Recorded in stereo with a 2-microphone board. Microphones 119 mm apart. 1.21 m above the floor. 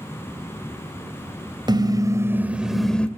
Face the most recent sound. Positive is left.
turn(degrees=10)  # may be behind; listen again after turning